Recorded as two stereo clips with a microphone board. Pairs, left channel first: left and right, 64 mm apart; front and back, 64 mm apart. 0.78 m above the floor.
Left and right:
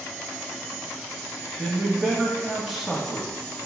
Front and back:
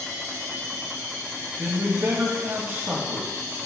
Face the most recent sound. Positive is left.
turn(degrees=180)